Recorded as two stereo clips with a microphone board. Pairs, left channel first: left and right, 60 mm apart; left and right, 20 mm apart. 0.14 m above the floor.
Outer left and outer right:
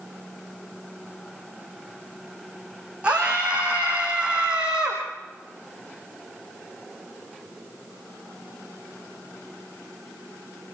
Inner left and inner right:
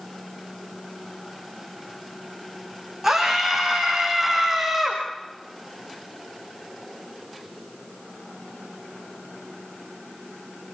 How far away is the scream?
About 7 m.